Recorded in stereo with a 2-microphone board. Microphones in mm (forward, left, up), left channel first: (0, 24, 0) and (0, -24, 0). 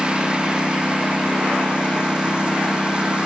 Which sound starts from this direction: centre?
A lawn mower, at 0.0 s.